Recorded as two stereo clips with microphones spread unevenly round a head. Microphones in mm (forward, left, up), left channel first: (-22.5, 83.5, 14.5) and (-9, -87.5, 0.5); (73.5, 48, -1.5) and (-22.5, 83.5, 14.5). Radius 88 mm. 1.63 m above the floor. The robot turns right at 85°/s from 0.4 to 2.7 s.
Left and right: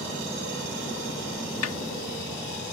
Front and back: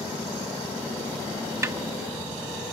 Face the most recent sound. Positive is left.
turn(degrees=-170)